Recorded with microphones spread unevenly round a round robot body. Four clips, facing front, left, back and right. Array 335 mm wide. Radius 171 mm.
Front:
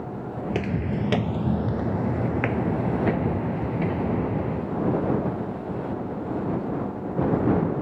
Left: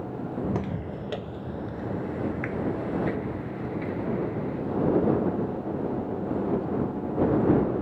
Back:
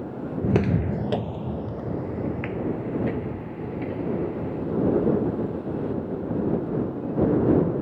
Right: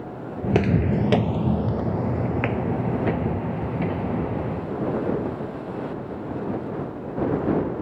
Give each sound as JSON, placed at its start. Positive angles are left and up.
{"t": 0.4, "sound": "footsteps", "azimuth_deg": -160}